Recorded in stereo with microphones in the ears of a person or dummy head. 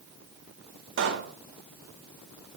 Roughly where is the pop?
Right.